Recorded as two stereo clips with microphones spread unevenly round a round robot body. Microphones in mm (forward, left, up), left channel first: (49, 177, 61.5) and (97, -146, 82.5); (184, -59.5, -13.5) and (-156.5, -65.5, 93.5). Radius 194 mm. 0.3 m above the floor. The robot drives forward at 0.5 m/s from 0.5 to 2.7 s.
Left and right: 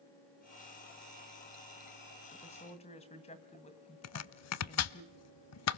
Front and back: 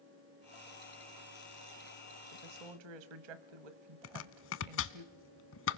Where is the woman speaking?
165° left, 2.0 m; by 5.0 s 170° left, 2 m.